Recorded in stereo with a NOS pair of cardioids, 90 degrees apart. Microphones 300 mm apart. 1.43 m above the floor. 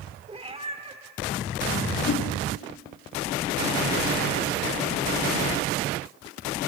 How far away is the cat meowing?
About 2.5 m.